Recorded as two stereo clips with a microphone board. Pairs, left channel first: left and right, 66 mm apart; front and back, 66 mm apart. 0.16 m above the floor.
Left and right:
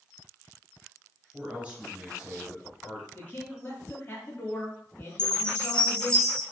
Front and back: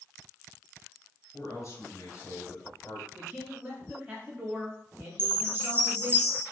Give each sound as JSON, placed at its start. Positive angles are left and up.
{"t": 1.3, "sound": "a man speaking", "azimuth_deg": -25, "distance_m": 1.6}
{"t": 3.1, "sound": "a man speaking", "azimuth_deg": 130, "distance_m": 1.3}
{"t": 5.2, "sound": "a chime", "azimuth_deg": 155, "distance_m": 0.8}